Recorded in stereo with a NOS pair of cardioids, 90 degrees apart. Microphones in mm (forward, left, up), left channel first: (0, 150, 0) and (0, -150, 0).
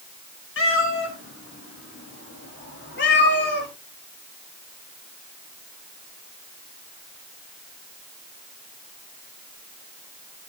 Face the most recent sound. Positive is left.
turn(degrees=35)